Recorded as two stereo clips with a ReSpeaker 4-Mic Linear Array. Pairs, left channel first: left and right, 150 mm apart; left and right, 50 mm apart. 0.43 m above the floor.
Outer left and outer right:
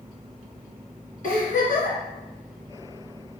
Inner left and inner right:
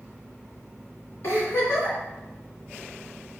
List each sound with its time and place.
1.2 s a giggle: 60° left (ahead or behind), 3 m